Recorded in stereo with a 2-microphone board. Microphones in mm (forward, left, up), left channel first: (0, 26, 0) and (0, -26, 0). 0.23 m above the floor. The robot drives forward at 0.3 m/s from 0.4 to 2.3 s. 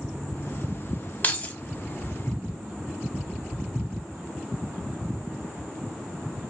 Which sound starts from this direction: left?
Keys jangling, at 1.2 s.